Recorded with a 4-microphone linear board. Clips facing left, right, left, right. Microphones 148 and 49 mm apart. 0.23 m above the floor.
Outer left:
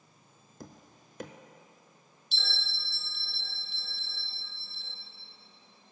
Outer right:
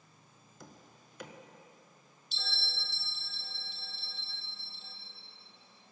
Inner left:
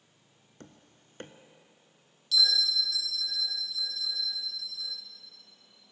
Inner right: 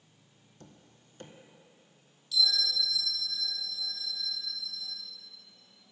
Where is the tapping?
50° left (ahead or behind), 0.7 m.